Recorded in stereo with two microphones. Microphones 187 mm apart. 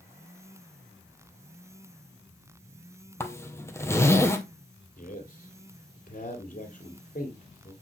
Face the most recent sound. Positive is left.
turn(degrees=45)  # may be behind; listen again after turning